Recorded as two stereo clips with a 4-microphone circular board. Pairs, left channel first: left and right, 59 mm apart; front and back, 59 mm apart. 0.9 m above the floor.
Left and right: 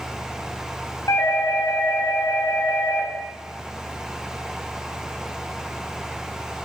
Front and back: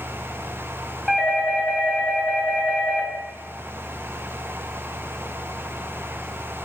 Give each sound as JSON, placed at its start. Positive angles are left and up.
{"t": 1.1, "sound": "a doorbell", "azimuth_deg": 100, "distance_m": 3.5}